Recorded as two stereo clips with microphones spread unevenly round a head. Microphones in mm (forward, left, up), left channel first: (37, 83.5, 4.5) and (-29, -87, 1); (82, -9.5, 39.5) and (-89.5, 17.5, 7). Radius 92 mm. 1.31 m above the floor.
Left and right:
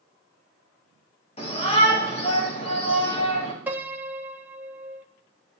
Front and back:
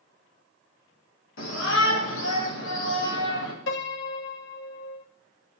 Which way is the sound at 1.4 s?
10° left.